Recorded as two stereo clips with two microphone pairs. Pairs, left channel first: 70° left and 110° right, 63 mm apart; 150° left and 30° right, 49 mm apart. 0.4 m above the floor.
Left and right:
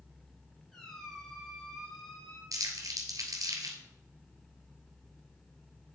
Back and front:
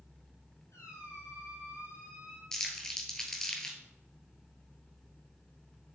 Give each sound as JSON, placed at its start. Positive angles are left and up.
{"t": 0.7, "sound": "a squeak", "azimuth_deg": 155, "distance_m": 3.0}
{"t": 2.5, "sound": "crumpling", "azimuth_deg": -130, "distance_m": 1.9}